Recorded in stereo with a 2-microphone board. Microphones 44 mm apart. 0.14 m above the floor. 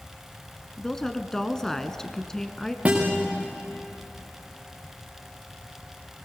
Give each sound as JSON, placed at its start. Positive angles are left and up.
{"t": 0.8, "sound": "a woman speaking", "side_deg": 10, "distance_m": 1.1}
{"t": 2.9, "sound": "a guitar", "side_deg": -25, "distance_m": 5.5}